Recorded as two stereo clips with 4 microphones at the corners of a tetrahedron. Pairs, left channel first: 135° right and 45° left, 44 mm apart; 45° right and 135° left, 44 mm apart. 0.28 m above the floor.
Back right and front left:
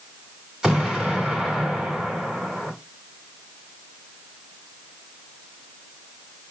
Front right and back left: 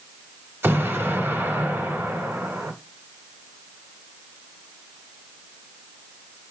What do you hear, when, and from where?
0.6 s an explosion: 120° left, 2 m